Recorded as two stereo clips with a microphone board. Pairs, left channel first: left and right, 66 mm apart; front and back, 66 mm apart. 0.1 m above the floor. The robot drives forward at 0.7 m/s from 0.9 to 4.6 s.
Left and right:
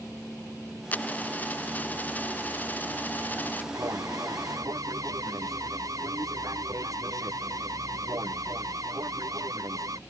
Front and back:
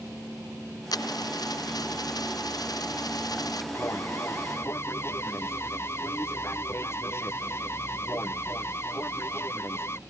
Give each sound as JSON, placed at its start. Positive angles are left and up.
{"t": 0.9, "sound": "a dropped coin", "azimuth_deg": 25}
{"t": 3.7, "sound": "an alarm", "azimuth_deg": -50}